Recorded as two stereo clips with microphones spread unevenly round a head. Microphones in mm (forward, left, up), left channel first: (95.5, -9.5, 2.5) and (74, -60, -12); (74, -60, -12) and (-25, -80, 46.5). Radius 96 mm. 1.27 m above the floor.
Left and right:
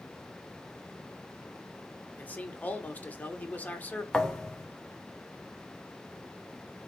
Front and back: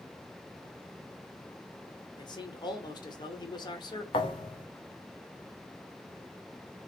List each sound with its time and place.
2.2 s a man speaking: straight ahead, 1.3 m
4.1 s a thud: 90° left, 0.6 m